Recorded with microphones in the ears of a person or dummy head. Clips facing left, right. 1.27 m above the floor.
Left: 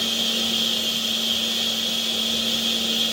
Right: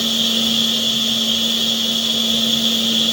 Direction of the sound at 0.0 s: 55° right (ahead or behind).